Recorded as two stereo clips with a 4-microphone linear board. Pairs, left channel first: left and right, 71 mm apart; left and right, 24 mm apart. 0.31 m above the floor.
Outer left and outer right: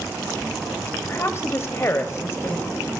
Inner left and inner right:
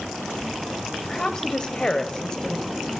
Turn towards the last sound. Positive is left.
turn(degrees=40)  # may be behind; listen again after turning